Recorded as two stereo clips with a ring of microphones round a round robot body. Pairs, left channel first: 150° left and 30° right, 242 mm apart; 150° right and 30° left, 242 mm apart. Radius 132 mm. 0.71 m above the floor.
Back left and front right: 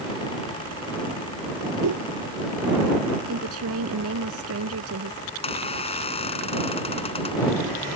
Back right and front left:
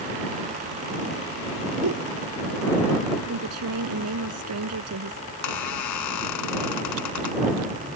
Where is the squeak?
145° right.